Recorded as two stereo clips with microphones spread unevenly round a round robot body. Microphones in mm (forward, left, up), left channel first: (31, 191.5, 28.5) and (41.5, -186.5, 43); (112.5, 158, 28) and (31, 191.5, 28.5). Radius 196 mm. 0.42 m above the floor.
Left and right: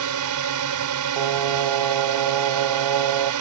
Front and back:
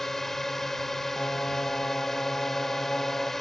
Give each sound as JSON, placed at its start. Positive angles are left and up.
{"t": 0.0, "sound": "a drone", "azimuth_deg": -110}
{"t": 1.2, "sound": "singing", "azimuth_deg": -105}